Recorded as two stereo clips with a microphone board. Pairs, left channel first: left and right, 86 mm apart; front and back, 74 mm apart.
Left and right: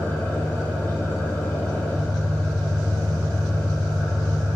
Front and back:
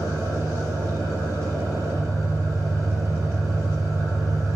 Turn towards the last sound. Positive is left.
turn(degrees=150)